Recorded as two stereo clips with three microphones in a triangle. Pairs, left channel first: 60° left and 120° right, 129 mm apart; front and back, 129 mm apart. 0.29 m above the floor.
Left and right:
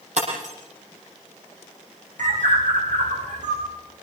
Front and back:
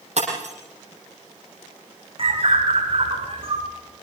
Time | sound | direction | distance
0.2 | breaking glass | 150° right | 7.5 m
2.2 | a bird | 135° right | 6 m